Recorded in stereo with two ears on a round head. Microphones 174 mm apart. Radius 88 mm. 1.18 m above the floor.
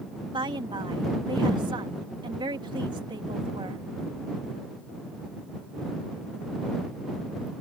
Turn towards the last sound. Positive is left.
turn(degrees=-25)  # may be behind; listen again after turning